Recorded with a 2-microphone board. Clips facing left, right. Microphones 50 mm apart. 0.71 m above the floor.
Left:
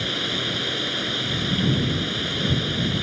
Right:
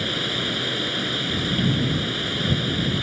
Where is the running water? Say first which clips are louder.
Right 1 dB; 5° right (ahead or behind).